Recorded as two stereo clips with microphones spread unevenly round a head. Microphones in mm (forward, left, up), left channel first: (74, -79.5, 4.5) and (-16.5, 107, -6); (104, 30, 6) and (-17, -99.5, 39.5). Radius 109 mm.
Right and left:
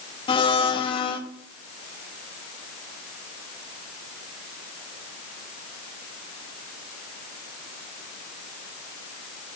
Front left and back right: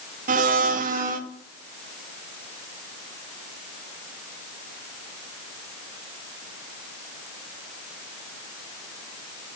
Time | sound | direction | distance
0.3 | a blender | 125° right | 0.5 m